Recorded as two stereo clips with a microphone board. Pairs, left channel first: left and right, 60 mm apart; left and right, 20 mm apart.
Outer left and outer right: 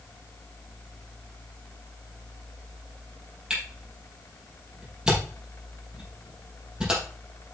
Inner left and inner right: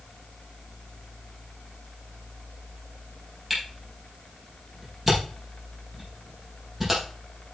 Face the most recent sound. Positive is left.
turn(degrees=-15)  # may be behind; listen again after turning